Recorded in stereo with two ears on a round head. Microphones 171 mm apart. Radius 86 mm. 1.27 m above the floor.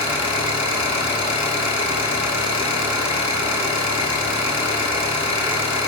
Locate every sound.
0.0 s an engine running: 30° left (ahead or behind), 6 m